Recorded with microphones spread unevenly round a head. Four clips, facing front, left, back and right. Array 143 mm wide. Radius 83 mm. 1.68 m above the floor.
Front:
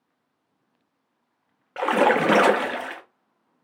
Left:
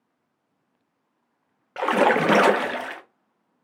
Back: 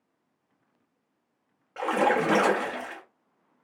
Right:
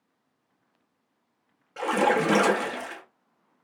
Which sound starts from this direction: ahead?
A splash, at 1.8 s.